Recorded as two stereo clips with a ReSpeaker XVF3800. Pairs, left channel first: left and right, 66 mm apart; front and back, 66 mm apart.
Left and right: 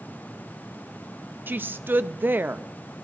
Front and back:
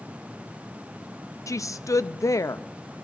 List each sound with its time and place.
1.5 s a woman speaking: 30° right, 0.5 m